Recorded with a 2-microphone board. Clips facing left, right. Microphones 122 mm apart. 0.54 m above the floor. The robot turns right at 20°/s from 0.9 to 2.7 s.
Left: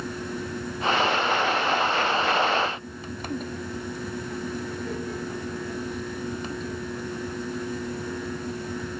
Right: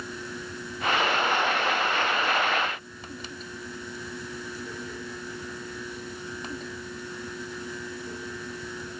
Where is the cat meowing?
I don't hear a cat meowing.